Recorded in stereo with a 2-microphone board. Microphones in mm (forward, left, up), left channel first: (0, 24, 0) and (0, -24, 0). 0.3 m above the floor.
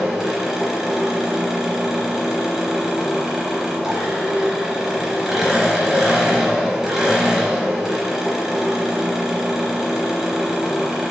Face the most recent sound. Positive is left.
turn(degrees=-5)  # may be behind; listen again after turning